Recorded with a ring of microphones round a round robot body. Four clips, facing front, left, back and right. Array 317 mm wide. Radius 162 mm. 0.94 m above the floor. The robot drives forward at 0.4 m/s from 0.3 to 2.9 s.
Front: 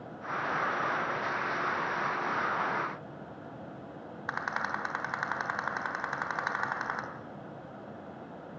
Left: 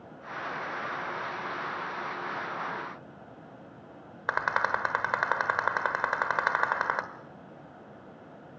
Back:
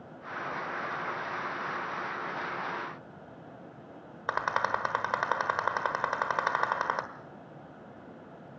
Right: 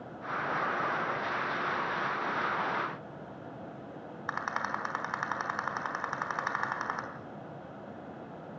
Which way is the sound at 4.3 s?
130° left.